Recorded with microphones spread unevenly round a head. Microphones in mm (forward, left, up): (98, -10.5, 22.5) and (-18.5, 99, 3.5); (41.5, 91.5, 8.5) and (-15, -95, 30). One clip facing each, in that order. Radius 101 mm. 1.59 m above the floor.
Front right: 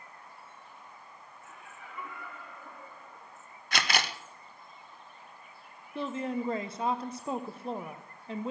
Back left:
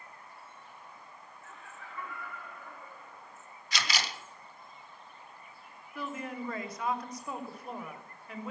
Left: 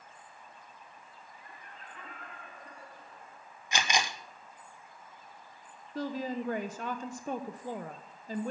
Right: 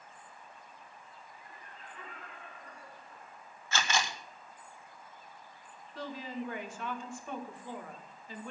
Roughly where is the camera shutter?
Ahead.